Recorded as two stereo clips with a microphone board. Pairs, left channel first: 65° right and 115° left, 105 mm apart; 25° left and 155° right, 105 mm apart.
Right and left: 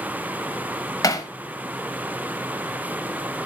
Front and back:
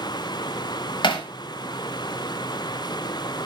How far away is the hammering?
About 1.1 m.